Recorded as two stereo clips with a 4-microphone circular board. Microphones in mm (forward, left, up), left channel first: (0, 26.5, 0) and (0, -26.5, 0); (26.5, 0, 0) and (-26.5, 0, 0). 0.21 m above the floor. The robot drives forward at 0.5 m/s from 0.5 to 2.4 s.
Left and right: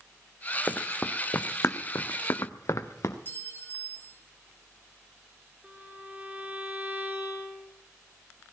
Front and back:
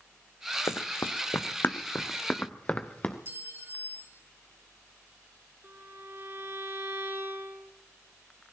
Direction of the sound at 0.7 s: 20° left.